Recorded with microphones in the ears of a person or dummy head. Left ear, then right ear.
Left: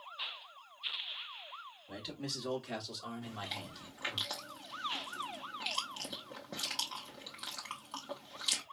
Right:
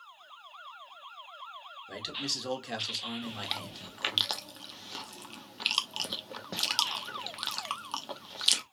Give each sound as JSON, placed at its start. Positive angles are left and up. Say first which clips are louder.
{"t": 1.9, "sound": "a man speaking", "louder": "right 8 dB", "side_deg": -50, "distance_m": 2.5}
{"t": 3.2, "sound": "chewing", "louder": "right 6 dB", "side_deg": -35, "distance_m": 0.8}